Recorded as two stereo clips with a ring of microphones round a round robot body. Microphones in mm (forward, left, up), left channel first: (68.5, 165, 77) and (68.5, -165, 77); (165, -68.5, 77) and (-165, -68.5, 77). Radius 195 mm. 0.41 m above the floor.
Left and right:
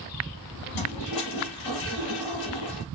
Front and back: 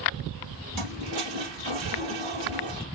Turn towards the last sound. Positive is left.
turn(degrees=135)